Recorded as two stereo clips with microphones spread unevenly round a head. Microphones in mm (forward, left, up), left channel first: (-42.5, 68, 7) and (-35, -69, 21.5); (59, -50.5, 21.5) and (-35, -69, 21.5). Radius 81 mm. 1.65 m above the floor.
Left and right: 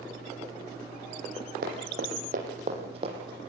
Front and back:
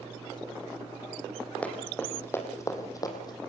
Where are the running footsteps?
65° right, 4 m; by 3.4 s 30° right, 3.5 m.